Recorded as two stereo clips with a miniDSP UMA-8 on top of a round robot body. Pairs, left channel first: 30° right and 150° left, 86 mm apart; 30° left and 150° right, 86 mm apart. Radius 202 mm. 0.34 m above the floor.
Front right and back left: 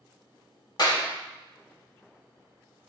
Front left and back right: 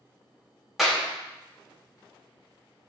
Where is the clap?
60° right, 3.5 m.